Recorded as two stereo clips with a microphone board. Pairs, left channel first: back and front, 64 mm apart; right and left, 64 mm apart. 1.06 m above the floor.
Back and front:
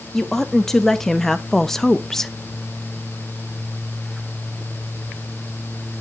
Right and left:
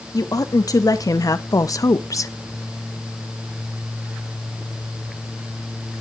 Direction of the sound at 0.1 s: 95° right.